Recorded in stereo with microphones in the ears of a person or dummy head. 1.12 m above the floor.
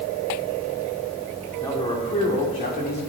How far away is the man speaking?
About 4 m.